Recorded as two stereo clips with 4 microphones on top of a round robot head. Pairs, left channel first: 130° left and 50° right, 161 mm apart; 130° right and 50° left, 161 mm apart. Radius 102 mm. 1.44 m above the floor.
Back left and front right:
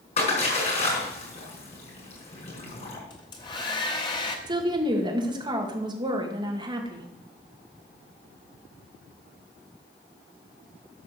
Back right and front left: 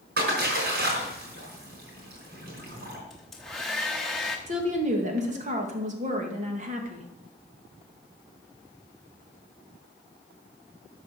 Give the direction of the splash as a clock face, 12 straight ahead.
9 o'clock.